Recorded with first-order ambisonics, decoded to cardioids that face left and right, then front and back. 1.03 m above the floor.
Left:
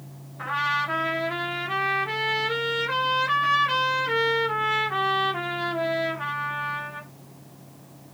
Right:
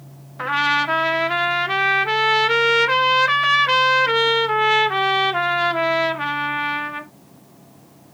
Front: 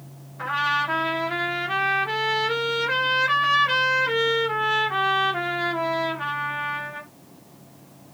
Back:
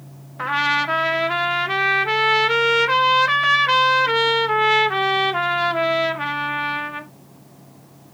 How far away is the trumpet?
About 0.6 m.